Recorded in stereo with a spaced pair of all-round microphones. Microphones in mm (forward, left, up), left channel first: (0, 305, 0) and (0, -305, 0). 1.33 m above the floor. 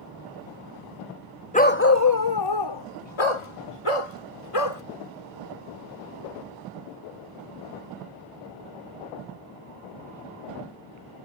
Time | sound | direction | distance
1.5 | a dog barking | 10° left (ahead or behind) | ?